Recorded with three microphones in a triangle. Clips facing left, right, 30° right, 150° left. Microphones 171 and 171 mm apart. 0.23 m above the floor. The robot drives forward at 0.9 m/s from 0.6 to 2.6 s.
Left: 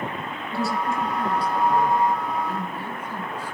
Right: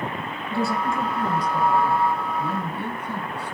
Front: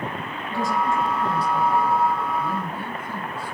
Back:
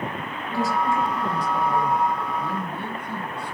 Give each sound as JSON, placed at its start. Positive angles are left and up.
{"t": 0.5, "sound": "a woman speaking", "azimuth_deg": -125, "distance_m": 4.5}
{"t": 2.4, "sound": "a man speaking", "azimuth_deg": -110, "distance_m": 3.5}